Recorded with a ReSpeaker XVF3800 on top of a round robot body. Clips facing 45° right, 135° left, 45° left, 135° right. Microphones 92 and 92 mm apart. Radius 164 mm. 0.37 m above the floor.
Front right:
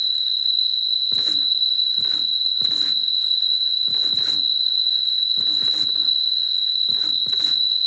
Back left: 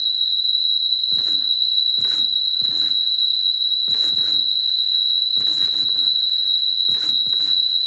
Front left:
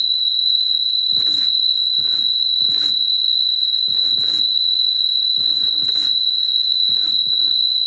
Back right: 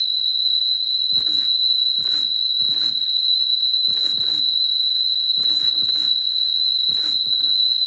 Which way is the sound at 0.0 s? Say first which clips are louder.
Back left 1 dB, front left 3 dB; straight ahead.